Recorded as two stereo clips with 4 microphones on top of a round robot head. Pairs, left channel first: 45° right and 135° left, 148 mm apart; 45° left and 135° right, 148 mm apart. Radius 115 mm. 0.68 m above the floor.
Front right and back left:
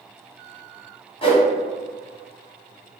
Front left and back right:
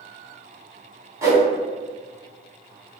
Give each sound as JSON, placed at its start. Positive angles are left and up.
{"t": 1.2, "sound": "a whoosh", "azimuth_deg": -75, "distance_m": 1.1}